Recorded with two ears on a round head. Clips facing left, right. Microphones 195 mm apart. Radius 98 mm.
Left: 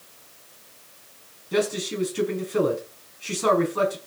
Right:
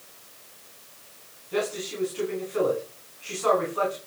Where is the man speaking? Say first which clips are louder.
Left 4 dB; 60° left (ahead or behind), 6 m.